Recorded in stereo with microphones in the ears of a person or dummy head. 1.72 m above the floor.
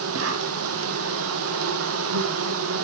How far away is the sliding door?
I don't hear a sliding door.